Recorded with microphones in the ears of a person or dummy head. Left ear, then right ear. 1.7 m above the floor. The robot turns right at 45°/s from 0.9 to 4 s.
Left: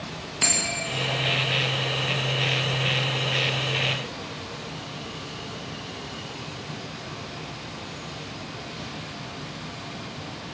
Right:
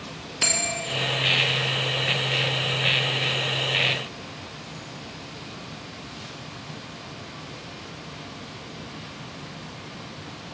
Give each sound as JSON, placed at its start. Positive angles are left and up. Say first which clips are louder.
{"t": 0.4, "sound": "a bell", "louder": "even", "side_deg": 0, "distance_m": 1.2}